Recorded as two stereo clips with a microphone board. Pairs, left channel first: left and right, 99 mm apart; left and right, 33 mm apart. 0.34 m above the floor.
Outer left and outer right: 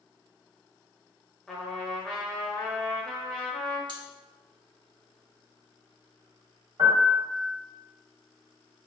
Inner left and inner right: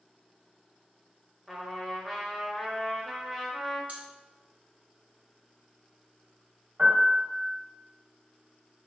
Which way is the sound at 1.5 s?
5° left (ahead or behind).